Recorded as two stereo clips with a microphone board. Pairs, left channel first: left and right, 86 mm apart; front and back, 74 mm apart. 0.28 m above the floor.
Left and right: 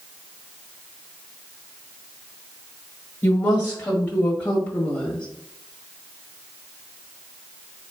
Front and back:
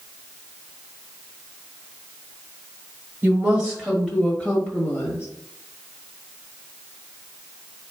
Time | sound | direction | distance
3.2 | a woman speaking | 135° left | 1.4 m